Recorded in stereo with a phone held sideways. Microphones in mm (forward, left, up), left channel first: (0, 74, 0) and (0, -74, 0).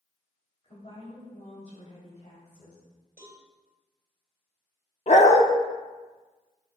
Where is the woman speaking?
40° left (ahead or behind), 3 m; by 2.8 s 70° left (ahead or behind), 3.5 m.